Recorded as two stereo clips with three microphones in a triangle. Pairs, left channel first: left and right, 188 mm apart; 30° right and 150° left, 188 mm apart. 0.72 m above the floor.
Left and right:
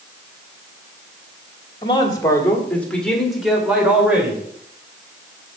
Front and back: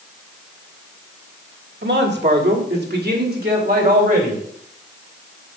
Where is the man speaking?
150° left, 1.7 m; by 4.4 s 170° right, 3 m.